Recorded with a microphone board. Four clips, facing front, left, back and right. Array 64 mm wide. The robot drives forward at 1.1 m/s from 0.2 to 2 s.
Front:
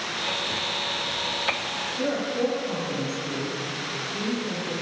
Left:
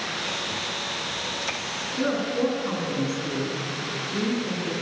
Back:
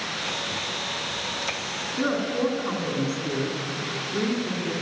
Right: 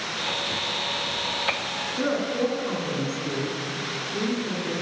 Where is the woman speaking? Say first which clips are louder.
Even, back 1 dB; 155° left, 4 m.